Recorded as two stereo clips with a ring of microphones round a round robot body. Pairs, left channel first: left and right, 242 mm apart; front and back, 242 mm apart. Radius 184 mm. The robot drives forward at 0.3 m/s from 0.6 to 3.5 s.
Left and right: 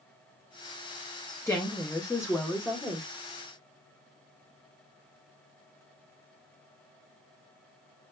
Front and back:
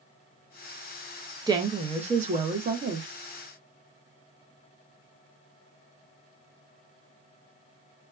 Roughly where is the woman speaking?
Behind left.